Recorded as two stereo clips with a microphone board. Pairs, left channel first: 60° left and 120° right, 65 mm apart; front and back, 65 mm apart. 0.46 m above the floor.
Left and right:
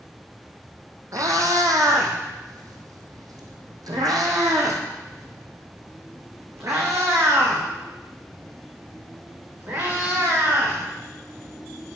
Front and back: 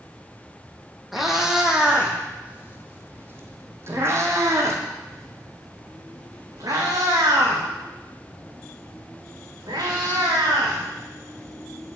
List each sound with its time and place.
1.1 s a cat meowing: 90° right, 2 m; by 10.8 s 170° right, 5 m